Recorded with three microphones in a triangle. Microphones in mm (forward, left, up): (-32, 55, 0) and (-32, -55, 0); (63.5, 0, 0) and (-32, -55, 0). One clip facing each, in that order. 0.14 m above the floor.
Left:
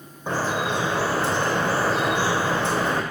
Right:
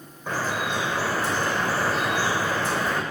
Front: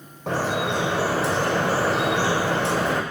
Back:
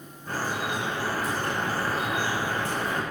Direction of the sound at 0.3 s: 25° left.